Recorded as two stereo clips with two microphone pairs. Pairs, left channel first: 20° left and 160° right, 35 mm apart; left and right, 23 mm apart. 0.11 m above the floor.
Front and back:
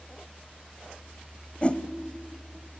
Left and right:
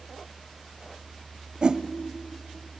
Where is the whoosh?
35° right, 1.1 m.